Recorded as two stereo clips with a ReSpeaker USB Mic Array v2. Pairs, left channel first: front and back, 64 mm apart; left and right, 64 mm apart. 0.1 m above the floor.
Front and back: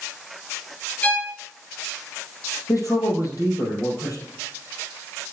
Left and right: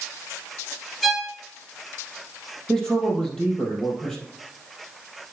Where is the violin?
5° left, 1.5 m.